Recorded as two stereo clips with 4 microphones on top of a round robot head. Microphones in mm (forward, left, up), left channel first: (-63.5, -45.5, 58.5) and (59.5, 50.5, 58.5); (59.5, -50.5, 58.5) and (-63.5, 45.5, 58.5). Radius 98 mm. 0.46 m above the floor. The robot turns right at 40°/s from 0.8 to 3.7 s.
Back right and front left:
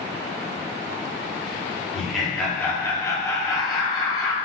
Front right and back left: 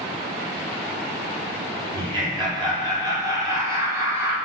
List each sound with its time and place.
1.9 s laughter: 120° left, 0.9 m; by 4.4 s 165° right, 0.9 m